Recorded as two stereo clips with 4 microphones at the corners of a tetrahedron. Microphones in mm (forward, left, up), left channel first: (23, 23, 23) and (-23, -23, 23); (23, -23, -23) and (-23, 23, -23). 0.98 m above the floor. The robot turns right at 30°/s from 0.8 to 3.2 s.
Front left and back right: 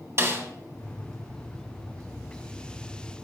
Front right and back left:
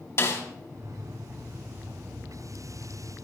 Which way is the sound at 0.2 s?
90° right.